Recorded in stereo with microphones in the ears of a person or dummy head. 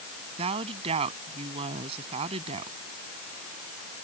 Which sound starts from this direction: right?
A woman speaking, at 0.4 s.